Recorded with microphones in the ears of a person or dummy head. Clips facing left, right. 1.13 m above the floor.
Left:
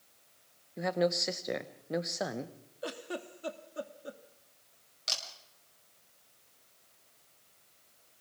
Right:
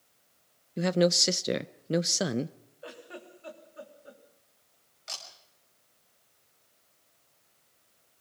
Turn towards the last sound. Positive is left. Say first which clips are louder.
# left 3 dB
turn(degrees=50)  # may be behind; listen again after turning